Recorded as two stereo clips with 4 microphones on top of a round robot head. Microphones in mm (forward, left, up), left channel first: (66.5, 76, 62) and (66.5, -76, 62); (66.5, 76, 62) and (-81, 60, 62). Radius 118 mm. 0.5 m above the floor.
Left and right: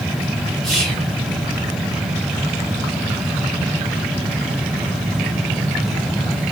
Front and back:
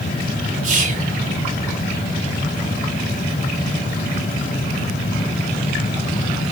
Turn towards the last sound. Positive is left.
turn(degrees=180)